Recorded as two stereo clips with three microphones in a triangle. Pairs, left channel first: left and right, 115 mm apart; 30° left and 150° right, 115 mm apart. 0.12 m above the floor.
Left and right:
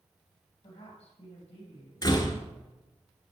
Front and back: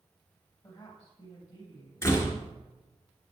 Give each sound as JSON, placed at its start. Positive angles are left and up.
{"t": 0.6, "sound": "a woman speaking", "azimuth_deg": 70, "distance_m": 4.0}
{"t": 2.0, "sound": "a door slam", "azimuth_deg": 75, "distance_m": 1.3}